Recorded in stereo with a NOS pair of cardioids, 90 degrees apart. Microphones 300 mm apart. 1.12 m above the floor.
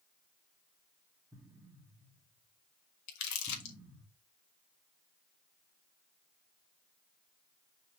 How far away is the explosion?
About 1.4 m.